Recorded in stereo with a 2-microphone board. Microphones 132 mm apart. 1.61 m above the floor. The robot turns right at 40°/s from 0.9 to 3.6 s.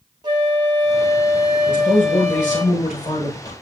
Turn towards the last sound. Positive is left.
turn(degrees=150)